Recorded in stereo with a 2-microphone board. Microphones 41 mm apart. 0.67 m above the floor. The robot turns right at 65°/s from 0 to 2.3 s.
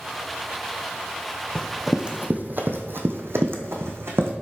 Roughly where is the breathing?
I don't hear breathing.